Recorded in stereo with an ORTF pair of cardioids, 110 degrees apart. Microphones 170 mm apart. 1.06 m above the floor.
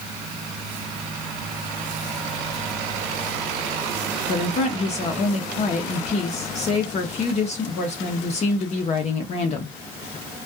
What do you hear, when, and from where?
4.3 s a woman speaking: 45° left, 0.7 m